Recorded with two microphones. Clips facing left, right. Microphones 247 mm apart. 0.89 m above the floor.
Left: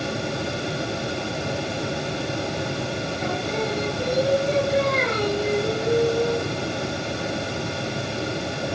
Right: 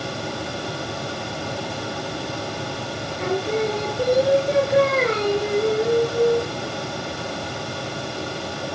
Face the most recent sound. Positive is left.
turn(degrees=-65)  # may be behind; listen again after turning